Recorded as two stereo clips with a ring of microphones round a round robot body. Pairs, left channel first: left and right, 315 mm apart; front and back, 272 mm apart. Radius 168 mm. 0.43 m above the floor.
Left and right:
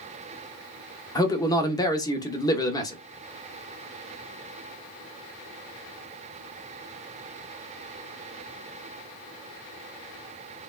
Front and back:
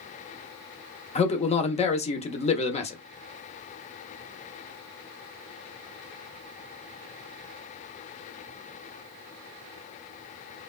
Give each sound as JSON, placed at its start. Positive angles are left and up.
{"t": 1.1, "sound": "a man speaking", "azimuth_deg": 25, "distance_m": 0.8}